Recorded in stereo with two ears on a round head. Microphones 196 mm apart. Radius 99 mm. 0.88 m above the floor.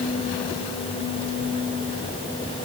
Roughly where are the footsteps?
I don't hear footsteps.